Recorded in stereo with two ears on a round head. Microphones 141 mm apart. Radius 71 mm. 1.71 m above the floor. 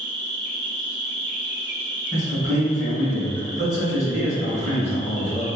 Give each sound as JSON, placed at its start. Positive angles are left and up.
{"t": 0.0, "sound": "an insect", "side_deg": -10, "distance_m": 1.4}
{"t": 2.1, "sound": "a man speaking", "side_deg": 25, "distance_m": 1.4}